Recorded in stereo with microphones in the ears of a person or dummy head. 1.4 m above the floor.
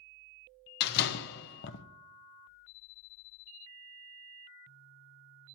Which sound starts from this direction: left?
A door slam, at 0.8 s.